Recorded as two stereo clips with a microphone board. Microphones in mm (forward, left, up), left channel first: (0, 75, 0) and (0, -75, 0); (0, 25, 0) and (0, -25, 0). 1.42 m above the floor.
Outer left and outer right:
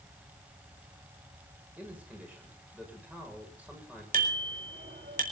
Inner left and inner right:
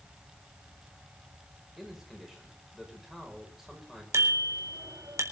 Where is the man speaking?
10° right (ahead or behind), 7 m.